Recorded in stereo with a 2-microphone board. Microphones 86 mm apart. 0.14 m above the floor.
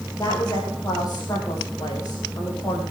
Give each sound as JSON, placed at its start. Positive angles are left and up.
{"t": 0.2, "sound": "a woman speaking", "side_deg": 40, "distance_m": 5.5}